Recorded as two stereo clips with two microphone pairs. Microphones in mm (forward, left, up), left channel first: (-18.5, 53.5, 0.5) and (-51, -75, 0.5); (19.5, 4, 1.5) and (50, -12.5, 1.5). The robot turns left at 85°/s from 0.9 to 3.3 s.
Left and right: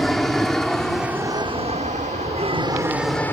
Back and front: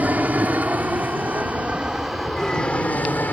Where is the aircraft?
10° right; by 3.3 s 150° left.